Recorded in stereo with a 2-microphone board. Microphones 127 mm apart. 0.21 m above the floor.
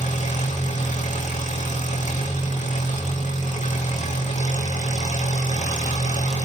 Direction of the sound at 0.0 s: 75° left (ahead or behind).